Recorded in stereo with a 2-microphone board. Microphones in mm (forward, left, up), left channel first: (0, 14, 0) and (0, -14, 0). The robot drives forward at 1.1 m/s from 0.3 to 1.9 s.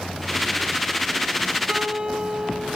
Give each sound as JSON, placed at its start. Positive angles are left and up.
{"t": 1.7, "sound": "a guitar", "side_deg": -40, "distance_m": 1.2}